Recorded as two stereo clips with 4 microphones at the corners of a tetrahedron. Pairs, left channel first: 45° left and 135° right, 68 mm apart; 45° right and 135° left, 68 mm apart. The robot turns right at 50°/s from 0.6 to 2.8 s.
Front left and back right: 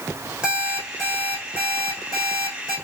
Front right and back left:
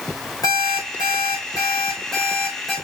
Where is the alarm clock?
60° right, 3.5 m; by 2.8 s 50° left, 3.5 m.